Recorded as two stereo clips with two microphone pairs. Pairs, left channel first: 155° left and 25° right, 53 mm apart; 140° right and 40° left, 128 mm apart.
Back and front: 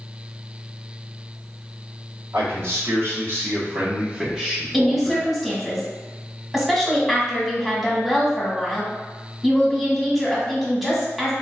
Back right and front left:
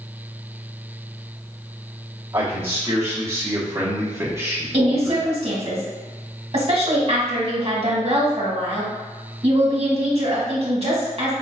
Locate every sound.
2.3 s a man speaking: 30° right, 1.6 m; by 5.3 s 110° left, 0.8 m
4.7 s a woman speaking: 60° left, 1.1 m